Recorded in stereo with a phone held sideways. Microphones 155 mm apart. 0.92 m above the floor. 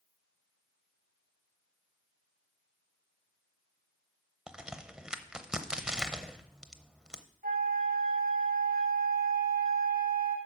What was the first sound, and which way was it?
A crack, 5° right (ahead or behind).